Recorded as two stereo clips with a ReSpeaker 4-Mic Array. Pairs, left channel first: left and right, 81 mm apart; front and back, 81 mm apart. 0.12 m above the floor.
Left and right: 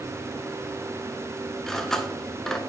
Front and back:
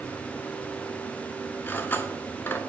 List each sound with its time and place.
1.7 s cutlery clinking: 10° left, 0.7 m